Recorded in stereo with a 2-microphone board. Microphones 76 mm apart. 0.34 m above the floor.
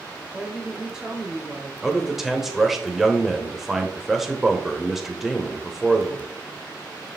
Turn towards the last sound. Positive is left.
turn(degrees=-5)  # may be behind; listen again after turning